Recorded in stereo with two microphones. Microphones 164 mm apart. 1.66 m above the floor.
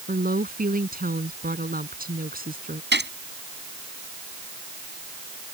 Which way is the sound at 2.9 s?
85° right.